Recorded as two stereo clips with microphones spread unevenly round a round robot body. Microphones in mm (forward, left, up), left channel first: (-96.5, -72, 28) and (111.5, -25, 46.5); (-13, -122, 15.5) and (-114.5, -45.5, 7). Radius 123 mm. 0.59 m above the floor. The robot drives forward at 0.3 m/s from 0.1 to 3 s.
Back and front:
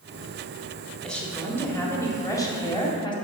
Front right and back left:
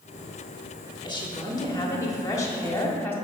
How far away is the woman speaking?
About 1.8 m.